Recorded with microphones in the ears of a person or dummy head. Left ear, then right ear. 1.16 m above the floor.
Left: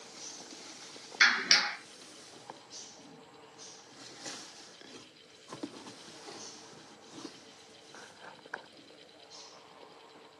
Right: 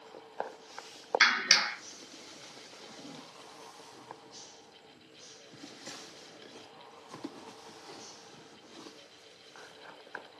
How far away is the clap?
About 0.6 m.